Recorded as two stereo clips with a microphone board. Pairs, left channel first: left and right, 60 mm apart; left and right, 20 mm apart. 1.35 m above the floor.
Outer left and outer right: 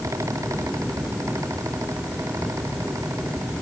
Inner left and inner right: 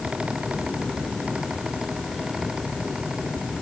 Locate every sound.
Only background noise.